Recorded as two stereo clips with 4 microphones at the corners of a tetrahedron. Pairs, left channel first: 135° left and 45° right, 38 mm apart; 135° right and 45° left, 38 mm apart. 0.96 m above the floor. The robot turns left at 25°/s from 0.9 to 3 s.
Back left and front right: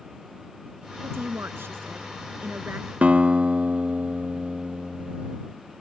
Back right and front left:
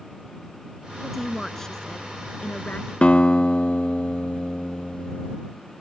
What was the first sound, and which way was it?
A woman speaking, 45° right.